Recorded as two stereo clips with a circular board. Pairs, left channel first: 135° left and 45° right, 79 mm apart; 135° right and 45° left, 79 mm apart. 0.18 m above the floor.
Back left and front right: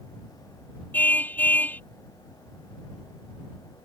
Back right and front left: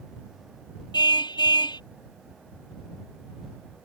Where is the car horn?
155° right.